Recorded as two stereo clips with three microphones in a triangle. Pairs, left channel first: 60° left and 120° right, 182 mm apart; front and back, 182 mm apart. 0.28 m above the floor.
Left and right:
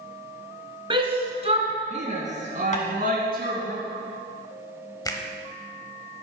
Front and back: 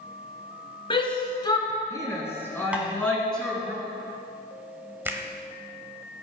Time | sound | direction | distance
0.9 | a shout | 60° right | 2.5 m
2.7 | tapping | 100° left | 2 m
5.0 | a finger snap | 110° left | 1.1 m